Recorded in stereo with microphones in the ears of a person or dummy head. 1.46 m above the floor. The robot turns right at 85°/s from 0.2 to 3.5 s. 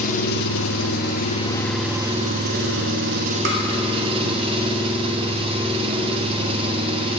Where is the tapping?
60° right (ahead or behind), 1.0 m; by 3.6 s 55° right (ahead or behind), 1.0 m.